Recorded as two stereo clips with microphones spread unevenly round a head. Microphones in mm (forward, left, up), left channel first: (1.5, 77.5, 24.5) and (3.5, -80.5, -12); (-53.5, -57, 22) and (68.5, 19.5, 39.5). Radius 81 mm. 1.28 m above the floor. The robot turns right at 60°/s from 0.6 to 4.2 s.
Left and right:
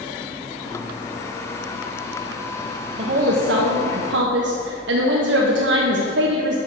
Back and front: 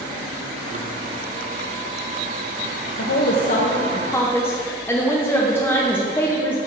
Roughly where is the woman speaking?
Behind right.